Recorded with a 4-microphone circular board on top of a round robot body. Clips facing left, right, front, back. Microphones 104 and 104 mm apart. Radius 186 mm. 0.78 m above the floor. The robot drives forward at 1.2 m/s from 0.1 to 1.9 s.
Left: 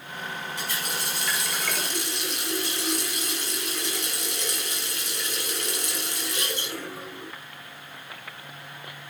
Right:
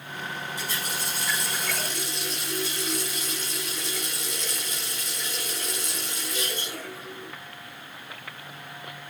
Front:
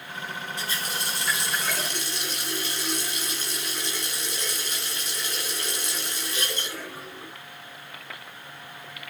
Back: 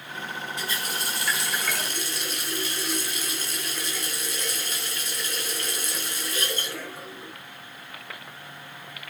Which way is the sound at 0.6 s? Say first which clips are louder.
Even, even; 60° left.